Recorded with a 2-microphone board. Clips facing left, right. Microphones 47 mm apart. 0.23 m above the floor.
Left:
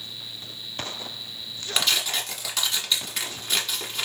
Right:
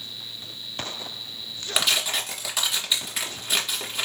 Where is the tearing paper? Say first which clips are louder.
Right 1 dB; 5° right (ahead or behind), 1.3 m.